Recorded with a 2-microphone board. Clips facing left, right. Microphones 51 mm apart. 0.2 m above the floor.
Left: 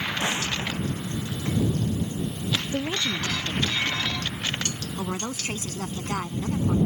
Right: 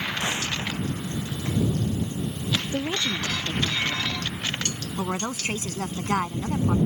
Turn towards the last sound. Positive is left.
turn(degrees=-30)  # may be behind; listen again after turning